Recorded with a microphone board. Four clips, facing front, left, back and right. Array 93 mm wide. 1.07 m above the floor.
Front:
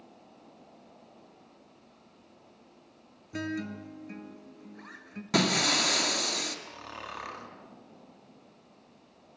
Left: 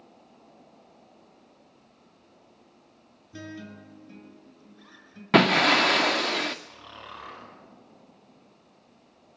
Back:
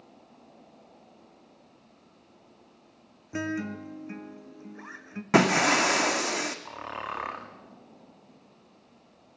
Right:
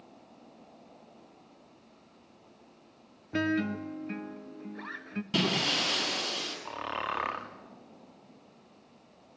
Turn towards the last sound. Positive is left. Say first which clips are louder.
# right 10 dB, back 6 dB
turn(degrees=-120)